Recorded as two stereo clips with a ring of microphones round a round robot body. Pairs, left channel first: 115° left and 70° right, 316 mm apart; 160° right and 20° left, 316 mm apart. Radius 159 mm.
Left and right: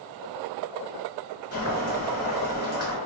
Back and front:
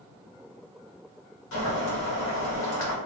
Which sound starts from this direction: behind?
Boiling, at 1.5 s.